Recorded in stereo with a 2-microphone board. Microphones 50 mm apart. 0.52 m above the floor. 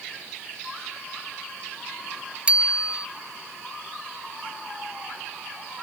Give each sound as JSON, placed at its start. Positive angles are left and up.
{"t": 2.5, "sound": "a bicycle bell", "side_deg": -25}